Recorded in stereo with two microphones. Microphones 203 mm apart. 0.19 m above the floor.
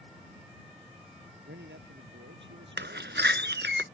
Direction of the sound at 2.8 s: 60° right (ahead or behind).